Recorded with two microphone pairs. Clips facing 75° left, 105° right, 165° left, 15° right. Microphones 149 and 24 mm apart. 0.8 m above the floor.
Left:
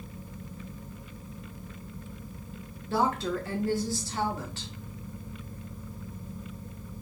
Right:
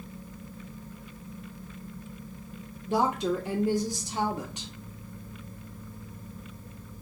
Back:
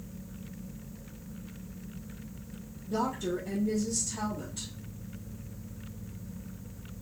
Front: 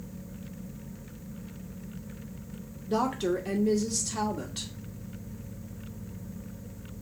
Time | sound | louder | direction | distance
2.9 | a woman speaking | right 1 dB, front 4 dB | 30° right | 1.0 m